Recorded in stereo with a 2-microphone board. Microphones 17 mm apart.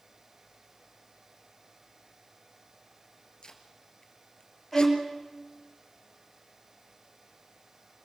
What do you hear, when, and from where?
3.4 s tape being pulled: 60° left (ahead or behind), 2.5 m
4.7 s a violin: centre (ahead or behind), 6 m